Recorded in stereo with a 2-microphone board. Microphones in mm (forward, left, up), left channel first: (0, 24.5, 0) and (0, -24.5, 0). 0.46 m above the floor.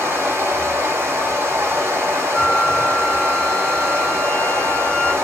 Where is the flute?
25° left (ahead or behind), 1.4 m.